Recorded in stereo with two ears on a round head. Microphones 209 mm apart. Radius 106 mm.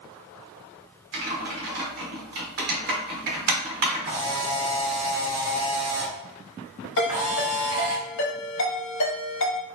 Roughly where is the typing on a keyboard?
Right.